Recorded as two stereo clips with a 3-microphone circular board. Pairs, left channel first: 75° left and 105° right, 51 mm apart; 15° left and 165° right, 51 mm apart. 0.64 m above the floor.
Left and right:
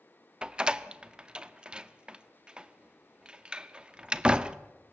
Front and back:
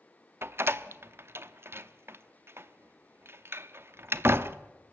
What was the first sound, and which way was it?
A door slam, 170° right.